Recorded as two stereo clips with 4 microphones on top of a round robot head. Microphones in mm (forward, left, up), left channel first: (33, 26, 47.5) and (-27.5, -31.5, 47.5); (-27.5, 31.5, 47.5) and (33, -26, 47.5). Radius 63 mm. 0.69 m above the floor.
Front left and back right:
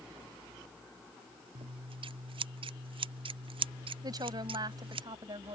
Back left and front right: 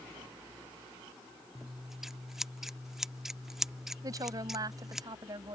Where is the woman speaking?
95° right.